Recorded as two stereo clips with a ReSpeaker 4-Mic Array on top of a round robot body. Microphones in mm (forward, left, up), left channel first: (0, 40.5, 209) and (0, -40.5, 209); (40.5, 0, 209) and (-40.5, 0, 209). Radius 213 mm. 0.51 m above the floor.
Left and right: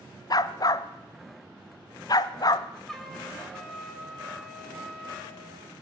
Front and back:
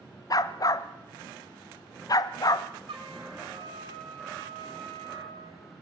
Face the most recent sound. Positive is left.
turn(degrees=175)